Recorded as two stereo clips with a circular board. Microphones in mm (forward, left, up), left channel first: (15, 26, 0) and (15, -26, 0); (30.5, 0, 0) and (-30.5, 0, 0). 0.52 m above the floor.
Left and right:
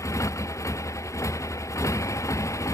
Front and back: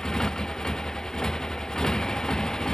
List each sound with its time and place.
0.0 s a motorcycle: 75° left